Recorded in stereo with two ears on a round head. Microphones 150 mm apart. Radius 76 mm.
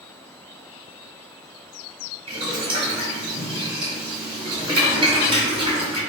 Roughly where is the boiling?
Right.